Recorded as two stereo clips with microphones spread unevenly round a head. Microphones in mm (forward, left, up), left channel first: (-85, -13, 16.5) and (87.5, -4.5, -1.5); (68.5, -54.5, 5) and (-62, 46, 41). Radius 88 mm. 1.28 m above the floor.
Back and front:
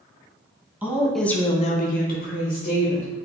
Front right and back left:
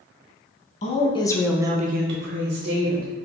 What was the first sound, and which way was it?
A woman speaking, 75° right.